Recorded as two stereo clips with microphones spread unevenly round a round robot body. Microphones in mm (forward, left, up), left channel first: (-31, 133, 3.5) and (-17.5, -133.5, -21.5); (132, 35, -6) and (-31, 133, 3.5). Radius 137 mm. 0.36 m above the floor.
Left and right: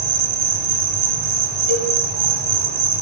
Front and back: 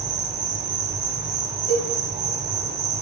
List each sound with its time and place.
0.0 s an insect: 135° right, 1.1 m
1.7 s a cowbell: 80° right, 3.5 m